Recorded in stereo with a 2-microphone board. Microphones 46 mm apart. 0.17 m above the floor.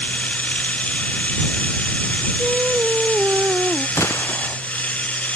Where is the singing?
30° right (ahead or behind).